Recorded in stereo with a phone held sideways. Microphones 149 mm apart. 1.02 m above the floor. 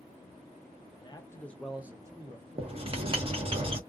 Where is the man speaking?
30° left (ahead or behind), 0.6 m; by 3.6 s 50° right (ahead or behind), 1.3 m.